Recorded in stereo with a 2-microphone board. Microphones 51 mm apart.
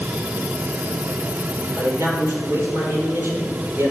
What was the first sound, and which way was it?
A man speaking, 60° right (ahead or behind).